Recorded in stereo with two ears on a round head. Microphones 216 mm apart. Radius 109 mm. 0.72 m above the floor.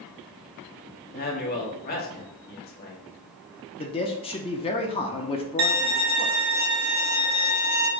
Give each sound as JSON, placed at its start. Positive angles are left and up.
{"t": 1.1, "sound": "a man speaking", "side_deg": 40, "distance_m": 1.1}
{"t": 3.8, "sound": "a man speaking", "side_deg": 25, "distance_m": 0.5}
{"t": 5.6, "sound": "a violin", "side_deg": -55, "distance_m": 1.3}